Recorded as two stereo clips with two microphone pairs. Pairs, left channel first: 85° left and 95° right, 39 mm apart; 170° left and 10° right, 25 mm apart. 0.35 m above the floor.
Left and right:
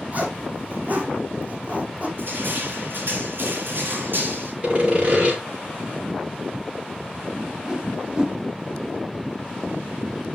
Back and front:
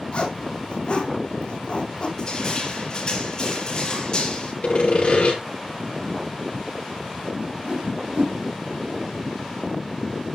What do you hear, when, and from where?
0.1 s a zipper: 145° right, 3 m
2.2 s crushing: 130° right, 6.5 m
4.6 s sawing: 145° right, 5 m
7.4 s a whoosh: 25° right, 1.3 m